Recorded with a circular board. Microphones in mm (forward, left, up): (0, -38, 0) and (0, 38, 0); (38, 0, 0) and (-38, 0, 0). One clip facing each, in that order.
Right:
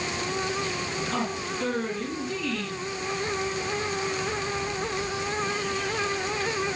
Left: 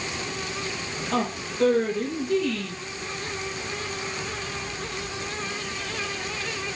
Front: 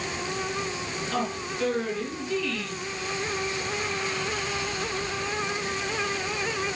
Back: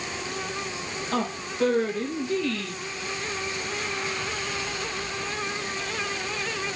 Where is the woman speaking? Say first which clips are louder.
Left 6 dB, back 2 dB; 125° left, 4 m.